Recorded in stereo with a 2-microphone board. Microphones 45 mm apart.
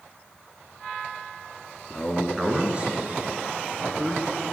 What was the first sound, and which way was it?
A man speaking, 20° left (ahead or behind).